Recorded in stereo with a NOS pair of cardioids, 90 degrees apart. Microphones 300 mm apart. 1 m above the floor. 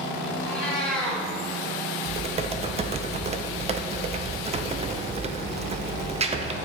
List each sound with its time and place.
0.5 s a cat meowing: 5° left, 2 m
2.0 s typing on a keyboard: 20° right, 0.5 m